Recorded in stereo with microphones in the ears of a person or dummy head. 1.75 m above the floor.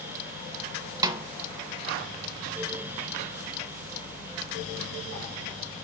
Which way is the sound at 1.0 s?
15° right (ahead or behind).